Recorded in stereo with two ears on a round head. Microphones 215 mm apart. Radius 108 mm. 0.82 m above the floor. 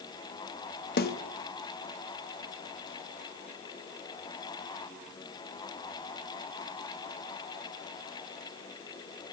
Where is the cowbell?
I don't hear a cowbell.